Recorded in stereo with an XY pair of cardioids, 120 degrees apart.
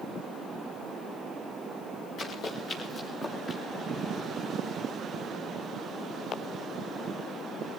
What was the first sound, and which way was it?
Running footsteps, 55° left.